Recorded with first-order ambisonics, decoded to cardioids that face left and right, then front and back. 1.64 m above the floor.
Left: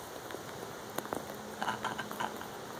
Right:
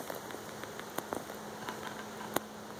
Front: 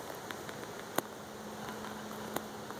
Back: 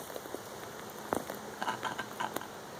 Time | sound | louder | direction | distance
1.5 | laughter | left 8 dB, back 9 dB | 140° left | 1.5 m